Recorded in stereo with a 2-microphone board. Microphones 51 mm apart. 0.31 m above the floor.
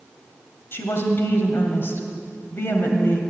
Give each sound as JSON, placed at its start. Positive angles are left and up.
{"t": 0.7, "sound": "a woman speaking", "side_deg": 45, "distance_m": 1.7}